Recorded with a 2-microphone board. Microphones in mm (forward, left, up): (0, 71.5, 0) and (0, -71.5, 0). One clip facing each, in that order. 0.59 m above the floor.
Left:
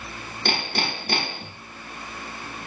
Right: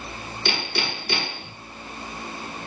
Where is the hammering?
50° left (ahead or behind), 4.5 m.